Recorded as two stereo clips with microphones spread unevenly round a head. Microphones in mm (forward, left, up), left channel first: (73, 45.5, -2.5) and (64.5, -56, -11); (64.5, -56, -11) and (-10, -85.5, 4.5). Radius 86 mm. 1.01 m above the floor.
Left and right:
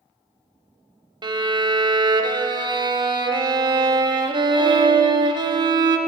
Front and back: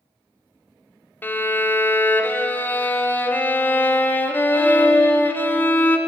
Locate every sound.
1.2 s a violin: 50° right, 0.6 m